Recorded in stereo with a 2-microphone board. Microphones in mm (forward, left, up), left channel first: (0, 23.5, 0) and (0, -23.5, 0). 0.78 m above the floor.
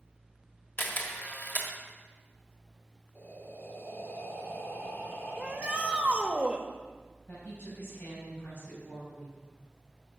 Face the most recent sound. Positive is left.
turn(degrees=50)  # may be behind; listen again after turning